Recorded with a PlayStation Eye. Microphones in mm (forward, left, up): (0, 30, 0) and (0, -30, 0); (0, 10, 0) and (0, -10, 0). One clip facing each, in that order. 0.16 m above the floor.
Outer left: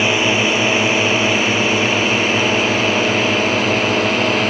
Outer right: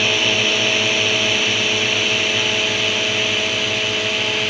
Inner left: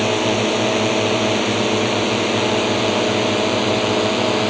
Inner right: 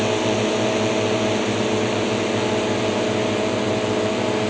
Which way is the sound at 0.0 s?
25° left (ahead or behind).